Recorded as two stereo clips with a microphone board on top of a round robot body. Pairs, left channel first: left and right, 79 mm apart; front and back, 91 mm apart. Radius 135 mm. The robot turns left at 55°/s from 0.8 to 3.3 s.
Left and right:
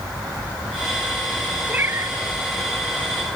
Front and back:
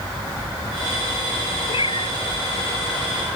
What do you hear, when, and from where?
1.7 s a cat meowing: 20° right; by 2.2 s 45° right